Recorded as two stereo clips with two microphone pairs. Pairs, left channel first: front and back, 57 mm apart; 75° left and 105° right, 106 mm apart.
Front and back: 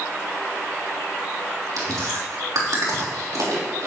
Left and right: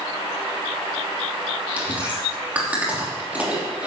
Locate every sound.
1.8 s chewing: straight behind, 3 m